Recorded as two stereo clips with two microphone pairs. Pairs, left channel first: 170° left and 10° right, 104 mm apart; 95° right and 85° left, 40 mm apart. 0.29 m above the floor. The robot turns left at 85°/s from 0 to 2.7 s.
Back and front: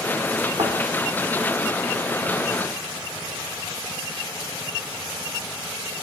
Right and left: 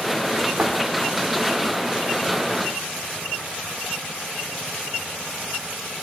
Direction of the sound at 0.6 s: 25° left.